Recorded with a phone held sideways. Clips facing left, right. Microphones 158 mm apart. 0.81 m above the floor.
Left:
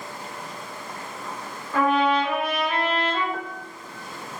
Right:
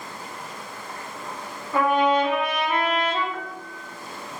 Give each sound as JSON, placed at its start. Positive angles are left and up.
{"t": 1.7, "sound": "a trumpet", "side_deg": -15, "distance_m": 3.0}
{"t": 3.3, "sound": "a piano", "side_deg": 45, "distance_m": 0.7}